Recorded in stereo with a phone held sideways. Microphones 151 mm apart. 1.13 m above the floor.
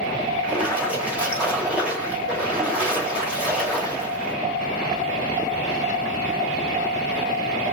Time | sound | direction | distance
0.4 | a splash | 10° right (ahead or behind) | 1.3 m